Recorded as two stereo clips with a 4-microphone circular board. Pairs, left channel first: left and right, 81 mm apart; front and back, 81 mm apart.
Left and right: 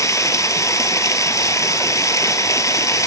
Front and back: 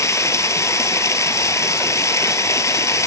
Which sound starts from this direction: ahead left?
Running water, at 0.0 s.